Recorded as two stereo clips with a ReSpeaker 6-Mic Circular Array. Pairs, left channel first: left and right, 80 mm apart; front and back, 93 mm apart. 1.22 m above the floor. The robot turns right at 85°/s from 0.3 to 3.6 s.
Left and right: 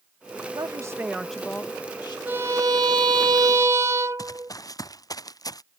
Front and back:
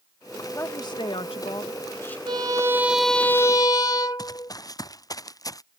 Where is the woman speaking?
65° right; by 2.2 s 70° left.